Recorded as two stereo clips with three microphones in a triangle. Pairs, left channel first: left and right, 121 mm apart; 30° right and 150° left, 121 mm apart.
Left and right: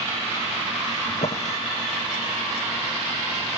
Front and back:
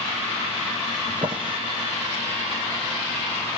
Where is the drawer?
105° left, 1.7 m.